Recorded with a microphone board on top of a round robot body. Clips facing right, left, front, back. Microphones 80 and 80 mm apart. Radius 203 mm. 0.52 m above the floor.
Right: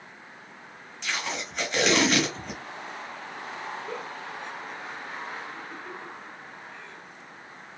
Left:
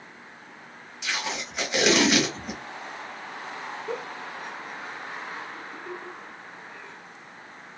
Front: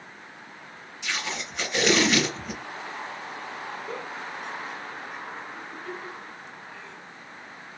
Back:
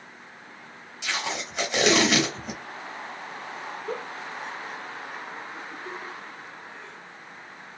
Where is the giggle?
170° left, 1.1 m.